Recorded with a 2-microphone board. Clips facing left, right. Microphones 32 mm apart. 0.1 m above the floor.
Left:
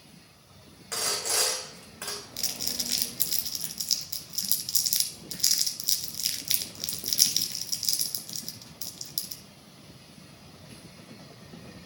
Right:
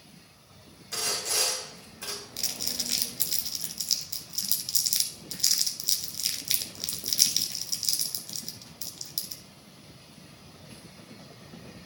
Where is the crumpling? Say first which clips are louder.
Even; centre (ahead or behind), 1.0 m.